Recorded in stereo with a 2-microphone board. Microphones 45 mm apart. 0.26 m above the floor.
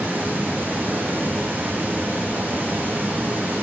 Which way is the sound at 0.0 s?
40° right (ahead or behind).